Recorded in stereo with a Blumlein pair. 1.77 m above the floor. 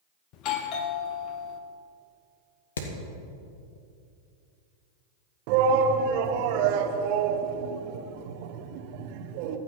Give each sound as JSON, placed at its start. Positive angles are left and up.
{"t": 0.3, "sound": "a doorbell", "azimuth_deg": 40, "distance_m": 1.3}
{"t": 2.8, "sound": "hammering", "azimuth_deg": 65, "distance_m": 2.0}
{"t": 5.5, "sound": "a shout", "azimuth_deg": -45, "distance_m": 1.5}